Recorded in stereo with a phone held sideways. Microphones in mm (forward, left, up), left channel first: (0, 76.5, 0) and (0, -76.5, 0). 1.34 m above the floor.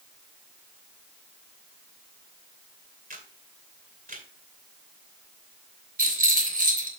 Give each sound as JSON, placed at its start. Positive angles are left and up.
{"t": 3.1, "sound": "a camera shutter", "side_deg": -70, "distance_m": 2.5}
{"t": 6.0, "sound": "a rattle", "side_deg": -70, "distance_m": 3.0}